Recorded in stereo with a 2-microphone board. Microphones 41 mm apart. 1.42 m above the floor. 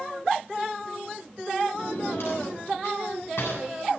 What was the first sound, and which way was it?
A drawer, 80° left.